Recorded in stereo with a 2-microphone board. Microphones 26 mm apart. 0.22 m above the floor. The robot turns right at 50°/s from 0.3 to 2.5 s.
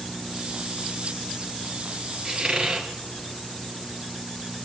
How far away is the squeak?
About 2.5 m.